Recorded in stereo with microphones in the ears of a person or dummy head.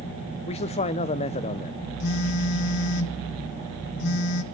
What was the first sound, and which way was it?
A man speaking, 40° left (ahead or behind).